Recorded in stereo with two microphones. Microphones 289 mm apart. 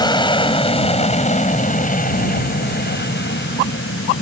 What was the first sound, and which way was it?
An aircraft, 15° left (ahead or behind).